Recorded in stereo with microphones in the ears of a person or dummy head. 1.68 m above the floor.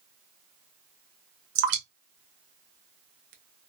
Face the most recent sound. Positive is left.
turn(degrees=-60)  # may be behind; listen again after turning